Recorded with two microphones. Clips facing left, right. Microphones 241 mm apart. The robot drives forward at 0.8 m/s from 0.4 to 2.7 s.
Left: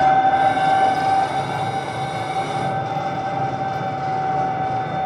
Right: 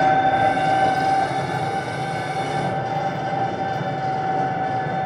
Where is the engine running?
20° right (ahead or behind), 1.0 m; by 5.1 s 10° right (ahead or behind), 2.5 m.